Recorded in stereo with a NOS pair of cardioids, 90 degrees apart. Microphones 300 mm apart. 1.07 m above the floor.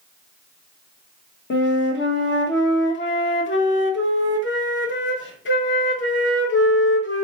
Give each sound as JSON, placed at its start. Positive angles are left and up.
{"t": 1.5, "sound": "a flute", "azimuth_deg": 40, "distance_m": 1.1}